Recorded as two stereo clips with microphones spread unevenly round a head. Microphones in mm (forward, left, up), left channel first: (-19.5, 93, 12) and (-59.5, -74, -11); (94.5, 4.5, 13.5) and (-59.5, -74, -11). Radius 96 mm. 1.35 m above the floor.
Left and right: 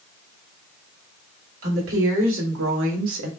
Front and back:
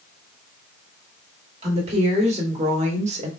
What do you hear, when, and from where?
1.6 s a woman speaking: 100° right, 2.5 m